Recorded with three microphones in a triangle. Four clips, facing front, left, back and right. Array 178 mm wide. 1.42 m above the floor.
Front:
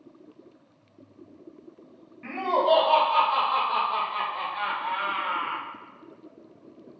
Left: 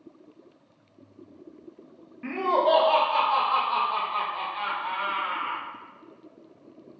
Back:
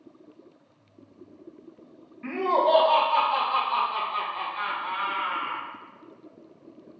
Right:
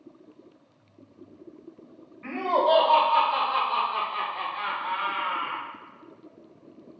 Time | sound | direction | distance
2.2 | laughter | 90° left | 2.5 m